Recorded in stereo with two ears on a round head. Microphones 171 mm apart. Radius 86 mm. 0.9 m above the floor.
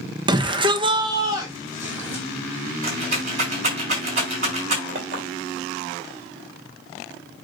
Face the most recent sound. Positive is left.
turn(degrees=-40)  # may be behind; listen again after turning